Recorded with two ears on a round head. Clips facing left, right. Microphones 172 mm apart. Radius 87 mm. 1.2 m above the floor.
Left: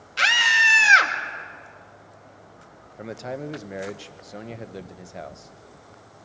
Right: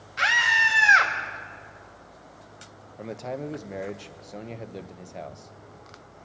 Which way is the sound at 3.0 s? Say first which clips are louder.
Left 1 dB; 5° left (ahead or behind).